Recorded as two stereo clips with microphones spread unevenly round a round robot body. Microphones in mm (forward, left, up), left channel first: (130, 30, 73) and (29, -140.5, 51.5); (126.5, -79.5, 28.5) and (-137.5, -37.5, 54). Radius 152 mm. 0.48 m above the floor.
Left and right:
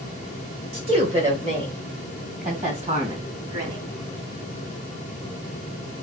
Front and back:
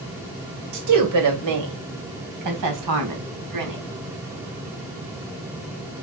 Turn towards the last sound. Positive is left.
turn(degrees=180)